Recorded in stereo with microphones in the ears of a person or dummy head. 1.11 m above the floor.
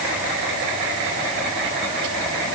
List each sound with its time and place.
Only background noise.